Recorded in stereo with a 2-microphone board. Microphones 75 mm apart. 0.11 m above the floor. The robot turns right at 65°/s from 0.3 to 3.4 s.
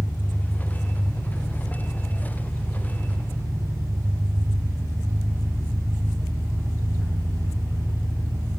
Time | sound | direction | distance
0.0 | an engine running | 25° left | 3 m